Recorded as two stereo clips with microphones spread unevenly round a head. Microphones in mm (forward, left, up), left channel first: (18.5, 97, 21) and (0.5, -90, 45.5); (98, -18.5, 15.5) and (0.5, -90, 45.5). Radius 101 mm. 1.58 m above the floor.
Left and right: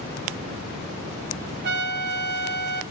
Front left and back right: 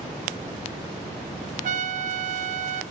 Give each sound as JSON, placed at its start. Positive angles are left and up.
{"t": 1.6, "sound": "a trumpet", "azimuth_deg": -135, "distance_m": 0.5}